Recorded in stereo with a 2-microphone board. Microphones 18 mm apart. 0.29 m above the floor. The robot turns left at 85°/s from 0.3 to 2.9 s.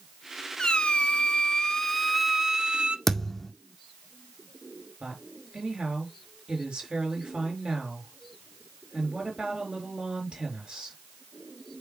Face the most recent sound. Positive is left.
turn(degrees=-70)  # may be behind; listen again after turning